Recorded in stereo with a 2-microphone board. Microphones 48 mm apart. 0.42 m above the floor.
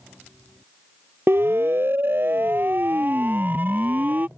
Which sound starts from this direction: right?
A siren, at 1.3 s.